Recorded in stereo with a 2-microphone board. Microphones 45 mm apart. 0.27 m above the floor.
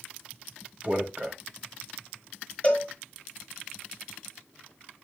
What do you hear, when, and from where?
0.8 s a man speaking: 30° right (ahead or behind), 1.0 m
2.6 s a cowbell: 35° left (ahead or behind), 1.2 m